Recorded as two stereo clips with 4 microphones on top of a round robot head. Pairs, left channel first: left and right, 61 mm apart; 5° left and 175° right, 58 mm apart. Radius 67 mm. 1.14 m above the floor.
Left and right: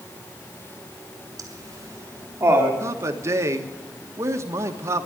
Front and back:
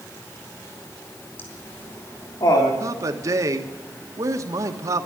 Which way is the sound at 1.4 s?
55° right.